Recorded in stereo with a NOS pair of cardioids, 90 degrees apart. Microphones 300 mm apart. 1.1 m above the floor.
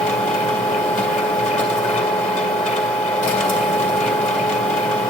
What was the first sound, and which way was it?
A machine running, 25° left.